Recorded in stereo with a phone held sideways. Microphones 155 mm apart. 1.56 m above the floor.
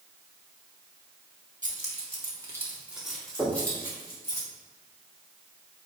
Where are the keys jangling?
55° right (ahead or behind), 2.0 m; by 4.4 s 20° left (ahead or behind), 4 m.